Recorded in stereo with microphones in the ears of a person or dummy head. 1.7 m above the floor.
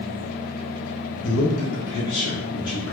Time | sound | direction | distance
1.2 | a man speaking | 80° left | 0.9 m